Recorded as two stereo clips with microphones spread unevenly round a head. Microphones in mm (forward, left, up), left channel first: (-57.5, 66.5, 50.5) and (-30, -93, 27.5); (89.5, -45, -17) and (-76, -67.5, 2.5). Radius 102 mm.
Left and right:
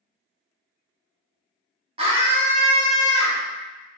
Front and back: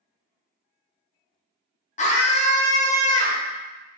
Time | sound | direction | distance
2.0 | a scream | 30° right | 0.8 m